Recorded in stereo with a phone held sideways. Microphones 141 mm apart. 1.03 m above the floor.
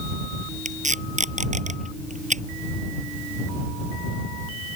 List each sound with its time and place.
0.7 s tape being pulled: 55° right (ahead or behind)